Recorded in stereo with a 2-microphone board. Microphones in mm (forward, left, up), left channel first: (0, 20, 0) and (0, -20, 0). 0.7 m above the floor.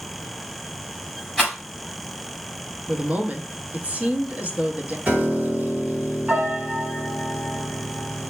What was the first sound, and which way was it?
A rattle, 10° left (ahead or behind).